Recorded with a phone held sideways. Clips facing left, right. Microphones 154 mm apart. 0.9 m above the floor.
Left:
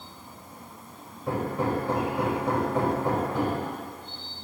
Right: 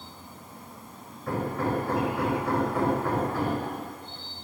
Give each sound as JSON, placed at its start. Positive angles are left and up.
{"t": 1.3, "sound": "hammering", "side_deg": 20, "distance_m": 4.0}